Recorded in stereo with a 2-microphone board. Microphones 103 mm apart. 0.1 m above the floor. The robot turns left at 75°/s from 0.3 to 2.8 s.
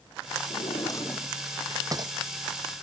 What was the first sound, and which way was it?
A drawer, 65° left (ahead or behind).